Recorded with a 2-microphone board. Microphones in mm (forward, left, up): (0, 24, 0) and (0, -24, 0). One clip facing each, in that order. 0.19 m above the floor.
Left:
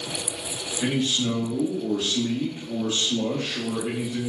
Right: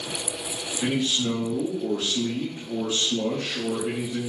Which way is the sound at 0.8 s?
5° left (ahead or behind).